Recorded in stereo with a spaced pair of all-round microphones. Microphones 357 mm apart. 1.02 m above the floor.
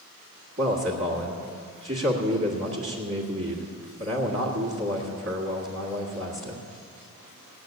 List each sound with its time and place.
0.6 s a man speaking: 35° right (ahead or behind), 1.7 m